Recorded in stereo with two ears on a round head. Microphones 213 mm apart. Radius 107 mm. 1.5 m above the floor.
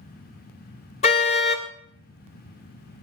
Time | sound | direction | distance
1.0 | a car horn | 30° left (ahead or behind) | 2 m